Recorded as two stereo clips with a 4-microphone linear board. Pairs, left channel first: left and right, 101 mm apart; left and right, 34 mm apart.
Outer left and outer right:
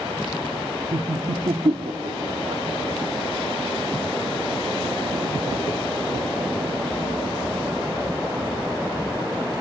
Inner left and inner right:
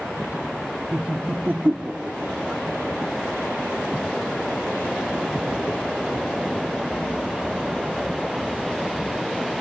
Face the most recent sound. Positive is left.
turn(degrees=-70)  # may be behind; listen again after turning